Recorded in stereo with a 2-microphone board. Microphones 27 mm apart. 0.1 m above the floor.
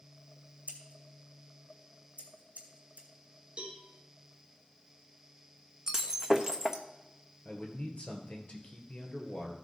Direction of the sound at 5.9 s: 20° right (ahead or behind).